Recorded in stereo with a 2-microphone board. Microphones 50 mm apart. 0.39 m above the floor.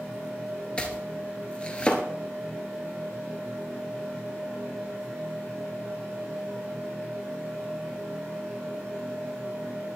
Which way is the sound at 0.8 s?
20° left (ahead or behind).